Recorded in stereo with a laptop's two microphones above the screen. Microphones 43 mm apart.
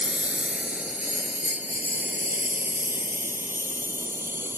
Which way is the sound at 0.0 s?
30° right (ahead or behind).